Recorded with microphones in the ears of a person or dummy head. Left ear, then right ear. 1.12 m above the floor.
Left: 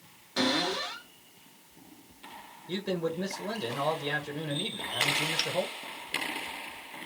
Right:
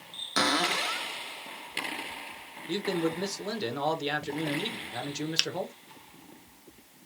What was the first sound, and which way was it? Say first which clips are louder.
A cupboard door: right 2 dB; 60° right (ahead or behind).